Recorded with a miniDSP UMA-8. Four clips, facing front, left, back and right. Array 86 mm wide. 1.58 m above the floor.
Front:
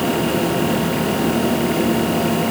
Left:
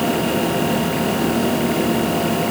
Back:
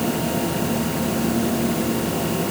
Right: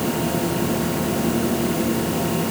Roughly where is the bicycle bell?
I don't hear a bicycle bell.